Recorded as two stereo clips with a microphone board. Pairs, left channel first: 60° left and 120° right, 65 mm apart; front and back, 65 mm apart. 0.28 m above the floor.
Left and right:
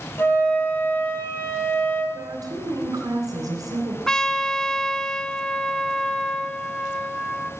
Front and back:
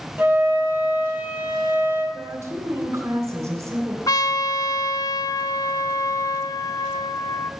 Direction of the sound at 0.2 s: 120° left.